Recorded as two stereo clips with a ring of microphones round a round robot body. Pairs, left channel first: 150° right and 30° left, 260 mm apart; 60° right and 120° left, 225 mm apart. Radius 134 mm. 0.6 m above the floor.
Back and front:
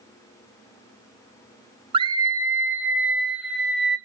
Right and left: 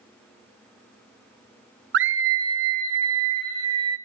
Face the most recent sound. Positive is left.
turn(degrees=120)